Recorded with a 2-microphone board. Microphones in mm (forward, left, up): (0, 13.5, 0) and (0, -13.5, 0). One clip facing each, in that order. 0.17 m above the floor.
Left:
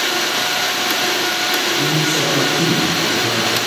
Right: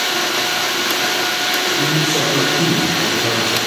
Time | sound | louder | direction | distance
1.8 | a man speaking | even | 65° right (ahead or behind) | 2.5 m